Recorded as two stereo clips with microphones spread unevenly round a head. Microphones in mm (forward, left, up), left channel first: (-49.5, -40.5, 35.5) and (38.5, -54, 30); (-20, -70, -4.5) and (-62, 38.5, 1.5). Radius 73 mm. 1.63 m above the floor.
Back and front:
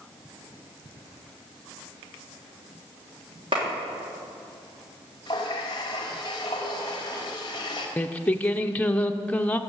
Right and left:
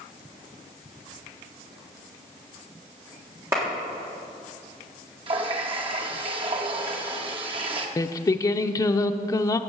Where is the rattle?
I don't hear a rattle.